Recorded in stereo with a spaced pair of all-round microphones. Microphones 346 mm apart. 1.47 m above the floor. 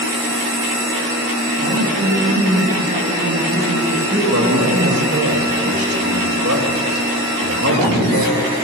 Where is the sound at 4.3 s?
45° right (ahead or behind), 2 m.